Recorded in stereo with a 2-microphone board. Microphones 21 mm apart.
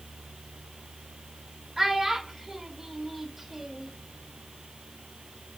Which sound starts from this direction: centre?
A child speaking, at 1.8 s.